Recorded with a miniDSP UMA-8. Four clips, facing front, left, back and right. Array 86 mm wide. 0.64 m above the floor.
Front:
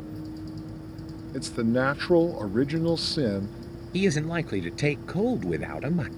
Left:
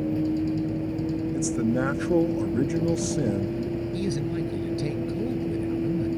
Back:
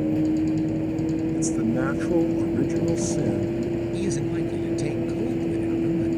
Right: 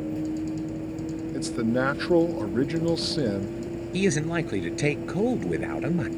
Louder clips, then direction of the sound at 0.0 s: Left 4 dB, back 16 dB; 170° left.